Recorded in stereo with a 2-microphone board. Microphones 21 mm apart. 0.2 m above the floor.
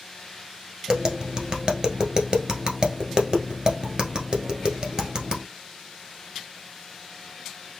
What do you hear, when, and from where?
0.9 s tapping: 35° right (ahead or behind), 1.2 m